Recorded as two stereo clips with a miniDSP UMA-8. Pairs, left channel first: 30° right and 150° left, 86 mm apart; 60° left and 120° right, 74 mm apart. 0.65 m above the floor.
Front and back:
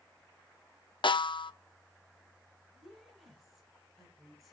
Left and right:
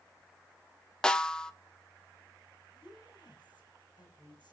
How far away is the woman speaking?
About 4 m.